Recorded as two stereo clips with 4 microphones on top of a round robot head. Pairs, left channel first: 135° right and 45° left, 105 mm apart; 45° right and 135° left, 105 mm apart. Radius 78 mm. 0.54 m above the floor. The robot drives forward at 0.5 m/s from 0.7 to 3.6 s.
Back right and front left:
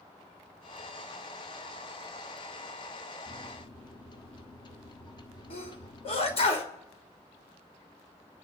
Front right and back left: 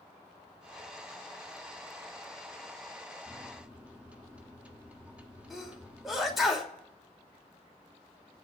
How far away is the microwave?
About 1.2 m.